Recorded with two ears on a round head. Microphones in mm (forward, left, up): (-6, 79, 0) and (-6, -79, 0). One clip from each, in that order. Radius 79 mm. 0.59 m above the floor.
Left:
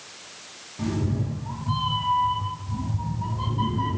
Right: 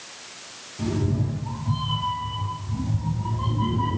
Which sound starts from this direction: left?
A cat meowing, at 0.8 s.